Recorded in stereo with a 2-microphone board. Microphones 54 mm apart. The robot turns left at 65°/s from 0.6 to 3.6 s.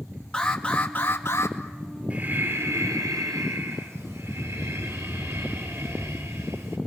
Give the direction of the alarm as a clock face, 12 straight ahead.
7 o'clock.